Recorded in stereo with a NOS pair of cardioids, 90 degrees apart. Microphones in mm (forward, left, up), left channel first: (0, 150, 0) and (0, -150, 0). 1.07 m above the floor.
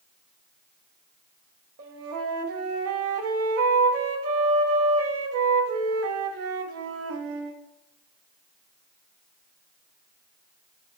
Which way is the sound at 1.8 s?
55° right.